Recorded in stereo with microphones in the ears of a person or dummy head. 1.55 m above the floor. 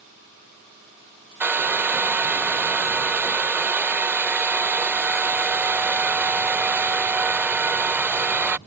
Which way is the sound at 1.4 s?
10° right (ahead or behind).